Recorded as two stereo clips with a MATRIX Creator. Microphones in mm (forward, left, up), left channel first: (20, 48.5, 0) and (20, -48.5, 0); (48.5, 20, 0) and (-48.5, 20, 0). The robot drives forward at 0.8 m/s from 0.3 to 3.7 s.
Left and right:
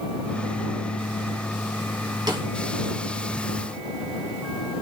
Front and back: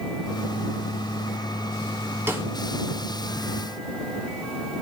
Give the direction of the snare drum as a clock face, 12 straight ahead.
4 o'clock.